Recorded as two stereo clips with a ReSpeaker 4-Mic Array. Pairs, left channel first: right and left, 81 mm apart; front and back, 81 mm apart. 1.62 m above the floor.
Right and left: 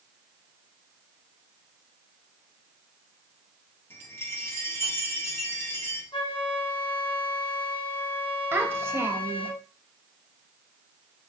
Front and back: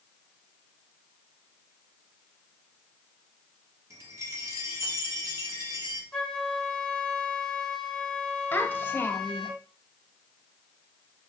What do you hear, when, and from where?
3.9 s a chime: 140° right, 1.6 m
6.1 s a flute: 80° right, 1.3 m
8.5 s a child speaking: 50° left, 1.0 m